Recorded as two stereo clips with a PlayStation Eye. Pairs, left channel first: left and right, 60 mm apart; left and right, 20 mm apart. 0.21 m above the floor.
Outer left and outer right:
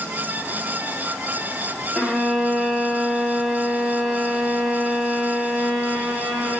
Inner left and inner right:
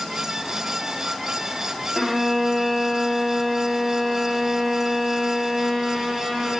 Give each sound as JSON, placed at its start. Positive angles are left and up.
{"t": 1.9, "sound": "a violin", "side_deg": 5, "distance_m": 4.0}